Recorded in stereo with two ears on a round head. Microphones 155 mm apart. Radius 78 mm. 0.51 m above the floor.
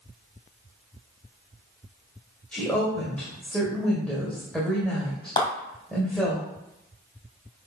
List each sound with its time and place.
2.5 s a woman speaking: 5° left (ahead or behind), 2.5 m
5.4 s a clap: 25° left (ahead or behind), 2.5 m